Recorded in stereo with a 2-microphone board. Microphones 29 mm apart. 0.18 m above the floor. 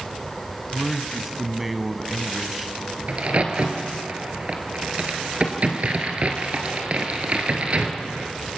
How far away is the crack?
About 2 m.